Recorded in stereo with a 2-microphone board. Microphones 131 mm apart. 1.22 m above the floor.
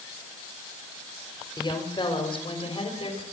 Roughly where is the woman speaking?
Left.